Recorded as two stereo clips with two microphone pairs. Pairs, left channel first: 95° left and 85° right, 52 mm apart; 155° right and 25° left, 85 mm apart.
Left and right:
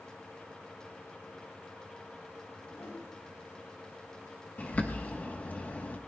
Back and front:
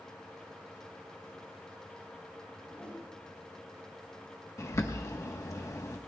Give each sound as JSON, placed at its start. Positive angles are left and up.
{"t": 2.5, "sound": "a whoosh", "azimuth_deg": 130, "distance_m": 7.5}
{"t": 4.6, "sound": "a bird", "azimuth_deg": 155, "distance_m": 1.3}